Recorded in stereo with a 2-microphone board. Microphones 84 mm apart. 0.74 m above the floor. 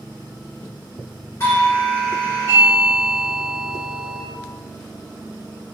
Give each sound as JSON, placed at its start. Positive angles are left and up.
{"t": 1.4, "sound": "a doorbell", "side_deg": 30, "distance_m": 1.8}